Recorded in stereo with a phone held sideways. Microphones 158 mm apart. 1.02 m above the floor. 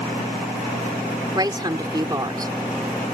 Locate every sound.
1.4 s a woman speaking: 25° right (ahead or behind)